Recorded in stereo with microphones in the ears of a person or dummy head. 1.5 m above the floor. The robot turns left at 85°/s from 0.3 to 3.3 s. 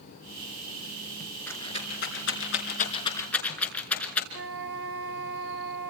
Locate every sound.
1.5 s a rattle: 10° left (ahead or behind), 4.5 m
4.3 s a flute: 65° right (ahead or behind), 2.5 m